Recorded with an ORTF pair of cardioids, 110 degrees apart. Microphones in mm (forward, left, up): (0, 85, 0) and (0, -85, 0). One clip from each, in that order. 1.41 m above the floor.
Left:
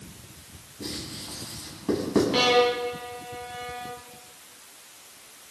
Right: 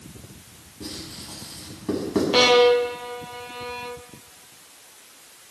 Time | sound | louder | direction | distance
0.8 | writing | left 1 dB | 5° left | 5.5 m
2.3 | a violin | right 7 dB | 30° right | 0.8 m